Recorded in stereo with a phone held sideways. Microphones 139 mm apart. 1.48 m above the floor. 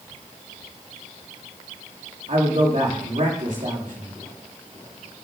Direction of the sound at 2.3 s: 65° right (ahead or behind).